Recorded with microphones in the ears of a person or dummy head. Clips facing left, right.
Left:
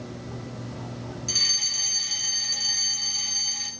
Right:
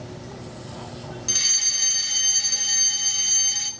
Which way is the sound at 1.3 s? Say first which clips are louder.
Right 1 dB; 15° right (ahead or behind).